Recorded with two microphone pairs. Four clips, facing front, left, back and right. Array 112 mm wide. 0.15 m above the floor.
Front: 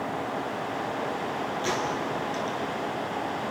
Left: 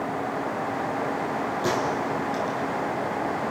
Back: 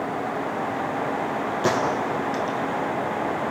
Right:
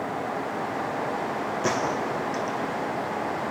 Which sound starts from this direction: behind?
A gunshot, at 1.6 s.